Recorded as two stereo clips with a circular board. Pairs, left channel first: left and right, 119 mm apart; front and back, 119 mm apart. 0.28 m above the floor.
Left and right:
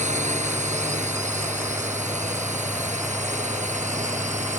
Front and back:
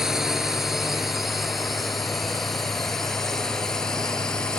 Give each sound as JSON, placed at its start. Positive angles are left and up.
{"t": 0.0, "sound": "a drone", "azimuth_deg": -95}